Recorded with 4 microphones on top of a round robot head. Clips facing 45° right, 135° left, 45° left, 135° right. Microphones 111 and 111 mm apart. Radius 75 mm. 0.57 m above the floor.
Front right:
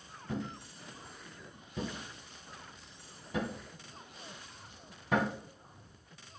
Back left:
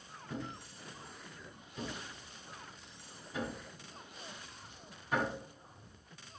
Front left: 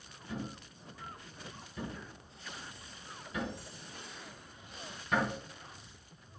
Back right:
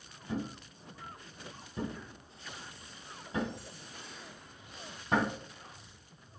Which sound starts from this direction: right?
A thud, at 0.3 s.